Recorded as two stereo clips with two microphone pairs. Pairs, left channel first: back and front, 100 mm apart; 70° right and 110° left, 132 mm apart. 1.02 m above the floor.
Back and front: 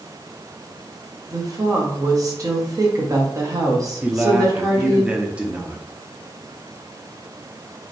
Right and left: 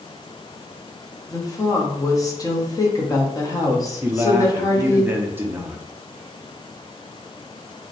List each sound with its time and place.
1.3 s a woman speaking: 25° right, 0.7 m
4.0 s a man speaking: 60° left, 0.6 m